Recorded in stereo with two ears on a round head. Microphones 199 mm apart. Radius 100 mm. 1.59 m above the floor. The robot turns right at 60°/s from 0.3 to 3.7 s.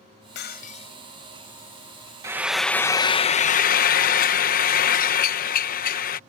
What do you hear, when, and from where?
0.3 s breaking glass: 125° left; by 1.0 s 160° left
2.2 s frying: 20° right; by 6.2 s 70° left